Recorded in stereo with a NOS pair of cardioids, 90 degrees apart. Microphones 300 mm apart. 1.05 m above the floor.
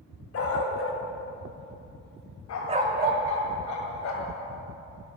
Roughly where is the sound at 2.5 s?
Left.